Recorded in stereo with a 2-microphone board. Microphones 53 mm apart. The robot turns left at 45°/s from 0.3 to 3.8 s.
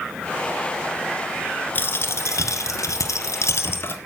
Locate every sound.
1.8 s a dropped coin: 140° left, 1.4 m; by 4.0 s 45° left, 1.4 m